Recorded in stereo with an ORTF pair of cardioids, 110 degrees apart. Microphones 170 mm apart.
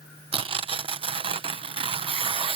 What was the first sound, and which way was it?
Tearing paper, 30° right.